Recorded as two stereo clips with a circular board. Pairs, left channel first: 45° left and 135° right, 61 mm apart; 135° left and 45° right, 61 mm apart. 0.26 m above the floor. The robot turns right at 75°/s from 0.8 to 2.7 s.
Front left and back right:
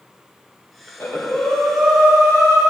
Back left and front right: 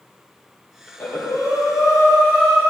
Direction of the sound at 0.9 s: 75° left.